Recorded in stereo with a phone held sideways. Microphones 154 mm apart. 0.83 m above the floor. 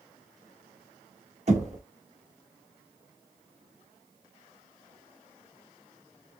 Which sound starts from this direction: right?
Knocking, at 1.5 s.